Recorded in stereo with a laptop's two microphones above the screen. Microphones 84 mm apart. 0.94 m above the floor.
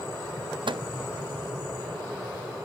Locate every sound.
0.7 s a microwave: 75° right (ahead or behind), 0.7 m